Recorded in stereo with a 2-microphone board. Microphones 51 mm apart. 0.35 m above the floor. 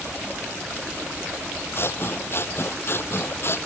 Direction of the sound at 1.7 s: 50° left (ahead or behind).